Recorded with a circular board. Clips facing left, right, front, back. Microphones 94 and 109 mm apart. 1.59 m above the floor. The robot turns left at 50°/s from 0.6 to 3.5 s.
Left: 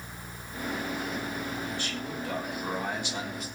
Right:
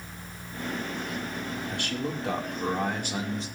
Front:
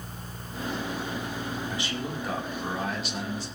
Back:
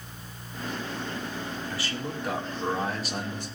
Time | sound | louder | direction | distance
1.7 | a man speaking | right 3 dB, front 1 dB | 65° right | 5 m